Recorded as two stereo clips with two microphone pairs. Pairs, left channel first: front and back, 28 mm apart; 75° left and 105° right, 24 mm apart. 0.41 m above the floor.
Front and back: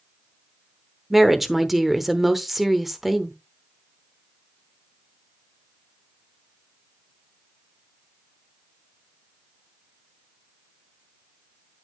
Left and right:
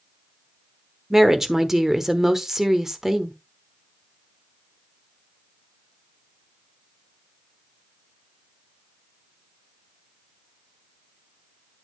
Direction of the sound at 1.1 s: 115° right.